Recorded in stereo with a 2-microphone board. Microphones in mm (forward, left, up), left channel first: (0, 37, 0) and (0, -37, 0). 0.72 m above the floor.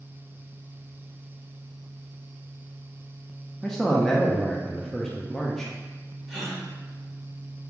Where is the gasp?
5° left (ahead or behind), 1.5 m.